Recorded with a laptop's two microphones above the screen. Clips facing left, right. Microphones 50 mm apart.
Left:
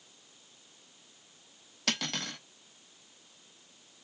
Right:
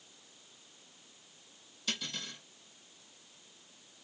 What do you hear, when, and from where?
1.9 s cutlery clinking: 70° left (ahead or behind), 0.6 m